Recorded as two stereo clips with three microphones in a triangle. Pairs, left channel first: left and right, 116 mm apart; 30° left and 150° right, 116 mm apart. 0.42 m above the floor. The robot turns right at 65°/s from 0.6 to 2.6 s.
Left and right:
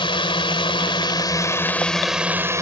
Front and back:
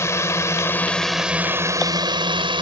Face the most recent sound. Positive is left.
turn(degrees=-145)